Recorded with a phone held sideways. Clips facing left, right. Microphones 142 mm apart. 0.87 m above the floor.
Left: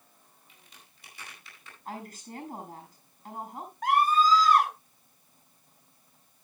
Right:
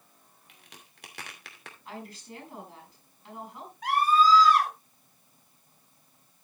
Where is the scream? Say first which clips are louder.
Right 1 dB; 45° left (ahead or behind), 6.5 m.